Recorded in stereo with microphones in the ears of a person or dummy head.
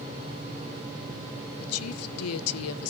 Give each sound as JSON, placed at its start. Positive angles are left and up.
{"t": 1.6, "sound": "a woman speaking", "side_deg": 85, "distance_m": 0.7}